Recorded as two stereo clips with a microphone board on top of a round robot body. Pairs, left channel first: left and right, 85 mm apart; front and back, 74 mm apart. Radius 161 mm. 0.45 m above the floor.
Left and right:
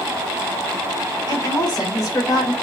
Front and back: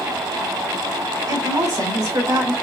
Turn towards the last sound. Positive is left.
turn(degrees=140)